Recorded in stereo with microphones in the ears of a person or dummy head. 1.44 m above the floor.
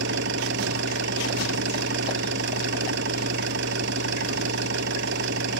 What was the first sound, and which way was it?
An engine running, 60° right (ahead or behind).